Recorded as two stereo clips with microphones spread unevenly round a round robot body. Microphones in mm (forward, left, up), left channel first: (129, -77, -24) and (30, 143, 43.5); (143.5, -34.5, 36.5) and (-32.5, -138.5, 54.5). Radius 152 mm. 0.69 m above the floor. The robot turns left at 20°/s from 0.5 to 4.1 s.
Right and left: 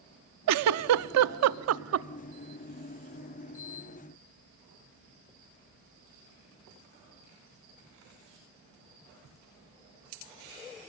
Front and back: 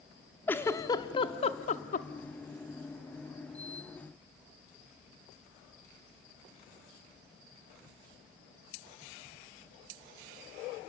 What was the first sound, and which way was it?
A giggle, 110° left.